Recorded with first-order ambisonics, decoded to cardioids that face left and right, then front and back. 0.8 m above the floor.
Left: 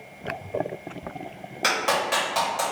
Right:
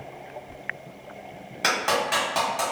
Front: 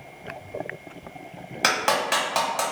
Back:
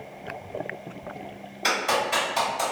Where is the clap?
Straight ahead, 1.3 m.